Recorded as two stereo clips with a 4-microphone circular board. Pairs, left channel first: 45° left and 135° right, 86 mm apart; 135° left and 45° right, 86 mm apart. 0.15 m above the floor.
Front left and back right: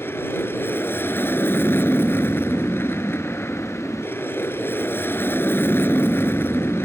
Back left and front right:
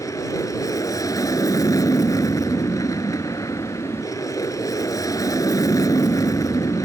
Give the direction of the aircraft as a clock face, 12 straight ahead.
9 o'clock.